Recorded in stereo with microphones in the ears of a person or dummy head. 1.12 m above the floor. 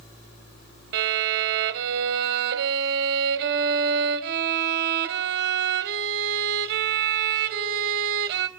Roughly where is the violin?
Right.